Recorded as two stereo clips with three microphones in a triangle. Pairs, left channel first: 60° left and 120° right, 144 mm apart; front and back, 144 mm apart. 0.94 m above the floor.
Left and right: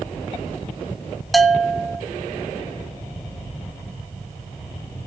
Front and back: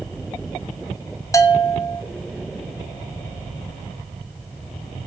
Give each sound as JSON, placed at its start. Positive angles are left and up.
{"t": 1.3, "sound": "a bell", "azimuth_deg": -30, "distance_m": 0.6}